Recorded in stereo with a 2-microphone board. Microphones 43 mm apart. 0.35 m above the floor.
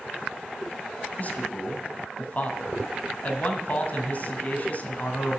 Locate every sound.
1.2 s a man speaking: 40° left (ahead or behind), 2 m